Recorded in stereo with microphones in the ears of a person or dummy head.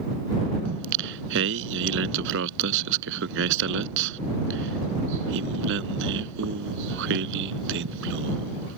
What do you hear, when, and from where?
0.7 s singing: 70° right (ahead or behind)